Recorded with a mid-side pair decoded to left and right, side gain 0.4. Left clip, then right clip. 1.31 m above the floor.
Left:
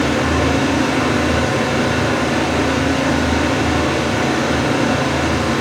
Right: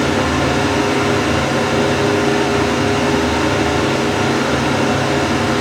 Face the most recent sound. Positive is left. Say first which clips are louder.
# right 1 dB
turn(degrees=-55)